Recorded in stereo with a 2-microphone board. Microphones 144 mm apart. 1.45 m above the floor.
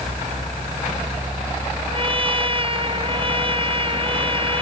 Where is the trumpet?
40° right (ahead or behind).